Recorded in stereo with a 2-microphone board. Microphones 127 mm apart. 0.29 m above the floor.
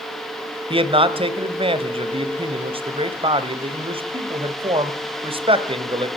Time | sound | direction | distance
0.7 | a man speaking | 45° right (ahead or behind) | 1.1 m